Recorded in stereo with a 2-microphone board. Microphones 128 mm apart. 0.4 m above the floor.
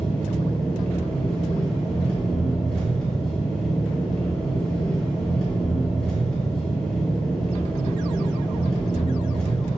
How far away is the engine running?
About 2 m.